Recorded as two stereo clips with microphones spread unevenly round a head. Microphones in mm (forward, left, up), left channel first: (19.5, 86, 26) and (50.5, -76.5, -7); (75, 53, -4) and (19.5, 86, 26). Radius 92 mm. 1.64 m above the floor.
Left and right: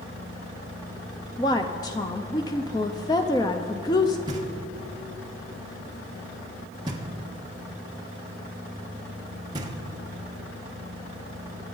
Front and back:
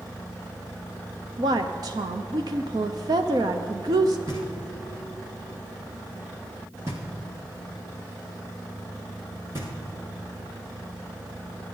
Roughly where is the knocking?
Behind right.